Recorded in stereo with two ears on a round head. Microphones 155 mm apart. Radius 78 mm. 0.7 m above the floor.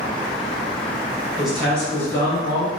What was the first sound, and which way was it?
A man speaking, 5° right (ahead or behind).